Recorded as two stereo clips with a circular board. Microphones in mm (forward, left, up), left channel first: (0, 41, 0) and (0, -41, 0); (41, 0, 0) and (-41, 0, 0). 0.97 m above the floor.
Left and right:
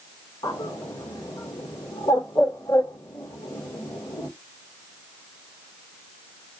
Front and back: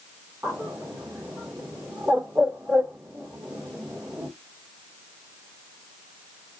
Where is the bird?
125° left, 2 m.